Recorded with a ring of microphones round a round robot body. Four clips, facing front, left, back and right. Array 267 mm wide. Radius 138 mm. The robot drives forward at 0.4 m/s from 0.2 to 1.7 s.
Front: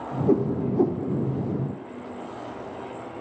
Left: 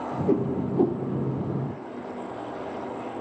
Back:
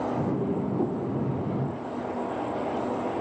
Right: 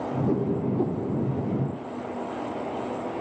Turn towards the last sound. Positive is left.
turn(degrees=120)